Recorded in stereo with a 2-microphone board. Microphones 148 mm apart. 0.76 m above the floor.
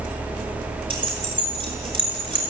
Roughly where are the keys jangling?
Right.